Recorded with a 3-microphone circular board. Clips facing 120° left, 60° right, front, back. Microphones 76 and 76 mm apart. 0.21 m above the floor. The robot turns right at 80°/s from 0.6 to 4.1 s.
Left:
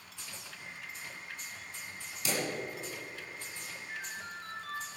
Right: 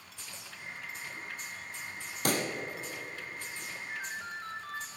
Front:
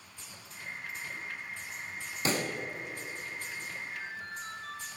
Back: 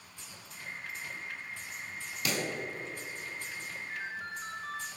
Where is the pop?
50° right, 1.4 m; by 2.5 s 30° right, 1.4 m.